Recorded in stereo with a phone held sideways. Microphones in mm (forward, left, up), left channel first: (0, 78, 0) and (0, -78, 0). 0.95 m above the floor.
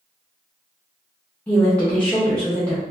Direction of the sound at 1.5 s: 10° left (ahead or behind).